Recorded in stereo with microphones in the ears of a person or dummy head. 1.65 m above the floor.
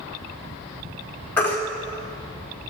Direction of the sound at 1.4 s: 10° left (ahead or behind).